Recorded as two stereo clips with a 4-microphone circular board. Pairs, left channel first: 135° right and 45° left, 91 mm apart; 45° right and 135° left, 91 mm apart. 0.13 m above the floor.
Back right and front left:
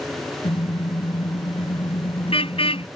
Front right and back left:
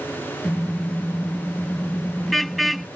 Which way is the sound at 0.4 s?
130° right.